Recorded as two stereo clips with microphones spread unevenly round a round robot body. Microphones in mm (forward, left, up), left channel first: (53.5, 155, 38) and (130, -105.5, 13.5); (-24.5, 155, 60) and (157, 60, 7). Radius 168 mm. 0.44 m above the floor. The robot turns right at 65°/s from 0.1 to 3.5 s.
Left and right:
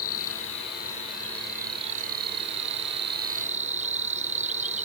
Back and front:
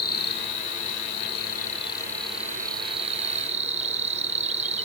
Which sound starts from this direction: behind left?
An insect, at 0.0 s.